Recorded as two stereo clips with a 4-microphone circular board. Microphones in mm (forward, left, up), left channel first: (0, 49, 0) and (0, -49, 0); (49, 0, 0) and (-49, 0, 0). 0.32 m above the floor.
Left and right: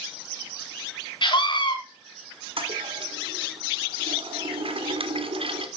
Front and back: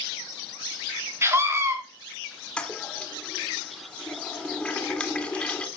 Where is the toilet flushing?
80° right, 1.8 m.